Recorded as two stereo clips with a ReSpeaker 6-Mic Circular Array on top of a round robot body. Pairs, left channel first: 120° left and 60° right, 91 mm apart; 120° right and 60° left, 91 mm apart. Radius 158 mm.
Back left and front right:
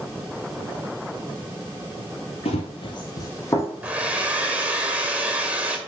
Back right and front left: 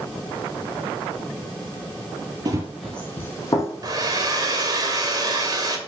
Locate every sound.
2.5 s running footsteps: 110° left, 0.7 m; by 4.6 s 165° right, 2.5 m
3.8 s a hair dryer: 15° left, 2.0 m